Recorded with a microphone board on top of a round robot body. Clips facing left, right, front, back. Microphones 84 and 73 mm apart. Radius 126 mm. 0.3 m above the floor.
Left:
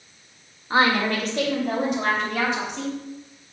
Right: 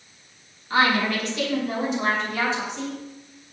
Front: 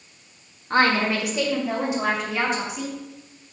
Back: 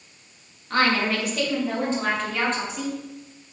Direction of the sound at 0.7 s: 50° left.